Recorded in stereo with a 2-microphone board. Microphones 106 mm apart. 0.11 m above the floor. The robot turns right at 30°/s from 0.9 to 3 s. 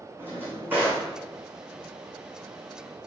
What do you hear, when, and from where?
0.2 s a drawer: 20° right (ahead or behind), 1.7 m; by 1.1 s 25° right (ahead or behind), 1.7 m